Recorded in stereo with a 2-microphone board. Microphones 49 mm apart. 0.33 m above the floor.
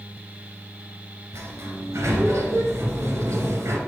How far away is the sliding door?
About 2.5 m.